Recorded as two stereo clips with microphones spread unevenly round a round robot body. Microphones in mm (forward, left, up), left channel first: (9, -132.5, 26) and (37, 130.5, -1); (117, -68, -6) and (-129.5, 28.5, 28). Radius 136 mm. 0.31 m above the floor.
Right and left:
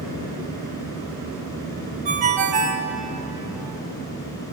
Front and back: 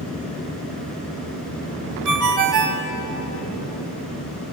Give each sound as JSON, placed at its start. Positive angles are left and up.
{"t": 2.0, "sound": "a ringtone", "azimuth_deg": 145, "distance_m": 0.9}